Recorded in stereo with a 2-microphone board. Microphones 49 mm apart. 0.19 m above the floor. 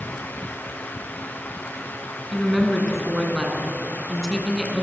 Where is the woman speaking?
Centre (ahead or behind), 2.5 m.